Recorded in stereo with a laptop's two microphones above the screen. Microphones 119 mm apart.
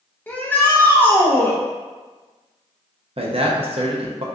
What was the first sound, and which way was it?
A shout, 15° left (ahead or behind).